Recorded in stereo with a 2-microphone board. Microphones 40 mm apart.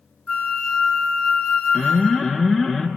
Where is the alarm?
Centre (ahead or behind), 0.9 m.